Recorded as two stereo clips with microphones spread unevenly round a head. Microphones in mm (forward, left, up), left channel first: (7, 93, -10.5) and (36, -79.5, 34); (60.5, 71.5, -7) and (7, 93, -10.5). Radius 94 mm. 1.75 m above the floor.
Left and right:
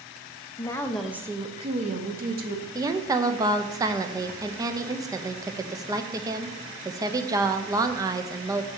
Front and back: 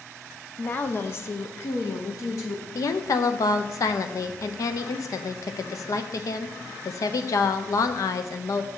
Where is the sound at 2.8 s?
15° right, 0.7 m.